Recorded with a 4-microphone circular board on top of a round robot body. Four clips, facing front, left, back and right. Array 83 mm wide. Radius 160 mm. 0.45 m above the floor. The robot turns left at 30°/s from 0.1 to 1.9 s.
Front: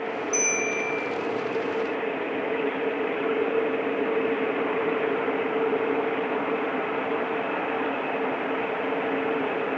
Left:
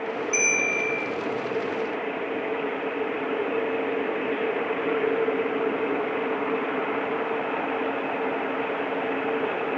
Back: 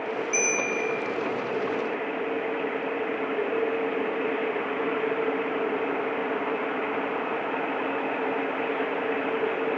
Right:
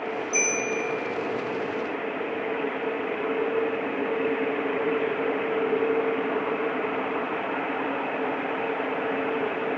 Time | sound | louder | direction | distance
0.3 | a bell | right 1 dB, even | 110° left | 9.5 m